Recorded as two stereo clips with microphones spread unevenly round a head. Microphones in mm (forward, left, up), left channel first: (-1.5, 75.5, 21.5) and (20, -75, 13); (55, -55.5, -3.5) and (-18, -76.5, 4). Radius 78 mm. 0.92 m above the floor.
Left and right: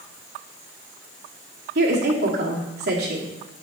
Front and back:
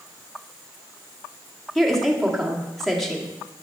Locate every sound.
1.8 s a woman speaking: 70° right, 1.7 m